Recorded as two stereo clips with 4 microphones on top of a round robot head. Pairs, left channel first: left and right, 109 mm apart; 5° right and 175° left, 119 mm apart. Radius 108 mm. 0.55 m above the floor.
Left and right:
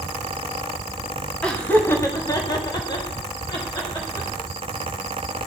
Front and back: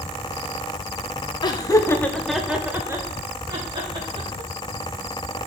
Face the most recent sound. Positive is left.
turn(degrees=135)